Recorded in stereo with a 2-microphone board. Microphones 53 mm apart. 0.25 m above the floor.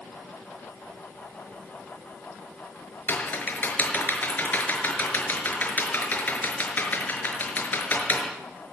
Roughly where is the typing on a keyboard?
Left.